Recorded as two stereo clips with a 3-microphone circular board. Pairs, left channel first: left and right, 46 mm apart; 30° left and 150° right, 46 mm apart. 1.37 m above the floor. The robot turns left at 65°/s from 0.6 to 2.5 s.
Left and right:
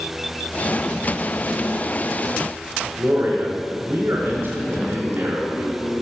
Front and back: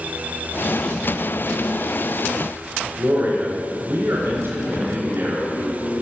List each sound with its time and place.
3.0 s a man speaking: 125° right, 4 m